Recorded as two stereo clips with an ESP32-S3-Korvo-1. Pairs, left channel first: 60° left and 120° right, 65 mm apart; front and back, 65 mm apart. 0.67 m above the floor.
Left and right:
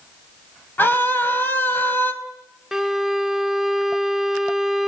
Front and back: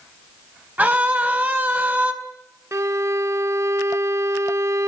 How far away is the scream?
About 4 m.